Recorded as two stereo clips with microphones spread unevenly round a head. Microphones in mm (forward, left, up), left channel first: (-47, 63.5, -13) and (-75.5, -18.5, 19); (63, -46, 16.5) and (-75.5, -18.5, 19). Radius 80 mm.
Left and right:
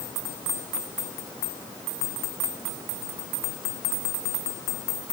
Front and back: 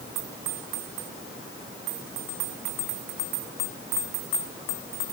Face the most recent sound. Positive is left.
No sound to turn to.